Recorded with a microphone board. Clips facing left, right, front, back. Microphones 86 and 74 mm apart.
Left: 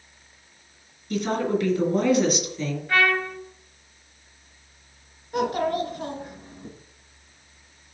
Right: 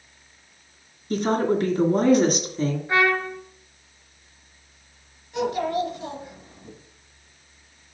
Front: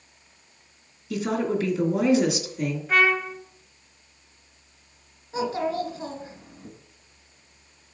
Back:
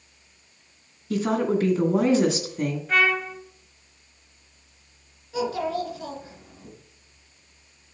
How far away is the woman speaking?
About 2 m.